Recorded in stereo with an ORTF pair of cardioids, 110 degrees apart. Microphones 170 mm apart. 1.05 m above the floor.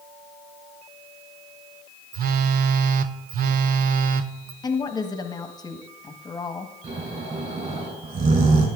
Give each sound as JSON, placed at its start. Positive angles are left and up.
{"t": 2.1, "sound": "a phone buzzing", "azimuth_deg": -60, "distance_m": 0.7}
{"t": 4.6, "sound": "a woman speaking", "azimuth_deg": 25, "distance_m": 1.3}
{"t": 6.8, "sound": "snoring", "azimuth_deg": -40, "distance_m": 4.0}